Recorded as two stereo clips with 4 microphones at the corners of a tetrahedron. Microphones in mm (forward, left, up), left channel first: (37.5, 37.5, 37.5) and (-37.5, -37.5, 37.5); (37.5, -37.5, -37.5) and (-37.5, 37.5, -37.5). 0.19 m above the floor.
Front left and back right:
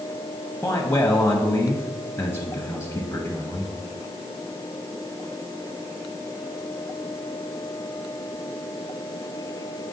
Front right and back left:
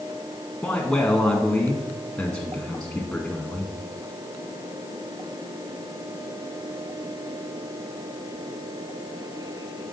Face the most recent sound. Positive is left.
turn(degrees=25)